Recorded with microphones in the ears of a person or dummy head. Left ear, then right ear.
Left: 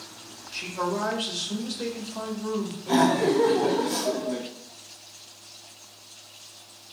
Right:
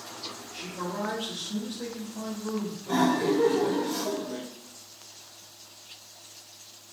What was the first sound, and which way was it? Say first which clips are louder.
A man speaking: left 8 dB; 65° left (ahead or behind).